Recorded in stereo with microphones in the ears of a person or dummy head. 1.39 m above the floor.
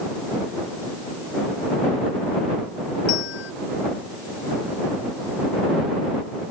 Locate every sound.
3.1 s a bell: 65° left (ahead or behind)